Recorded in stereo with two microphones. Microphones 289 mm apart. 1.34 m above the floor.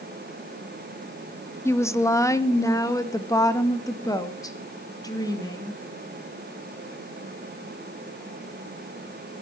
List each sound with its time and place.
1.6 s a woman speaking: 10° left (ahead or behind), 0.8 m